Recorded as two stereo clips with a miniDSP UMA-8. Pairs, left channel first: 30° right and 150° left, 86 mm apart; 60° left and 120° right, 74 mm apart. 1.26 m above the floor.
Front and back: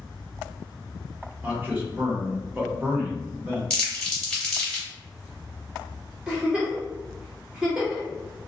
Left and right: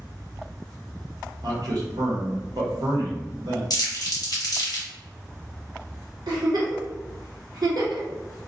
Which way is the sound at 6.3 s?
130° right.